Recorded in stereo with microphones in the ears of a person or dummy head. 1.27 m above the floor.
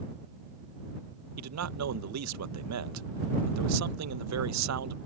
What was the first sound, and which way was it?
A man speaking, 80° right.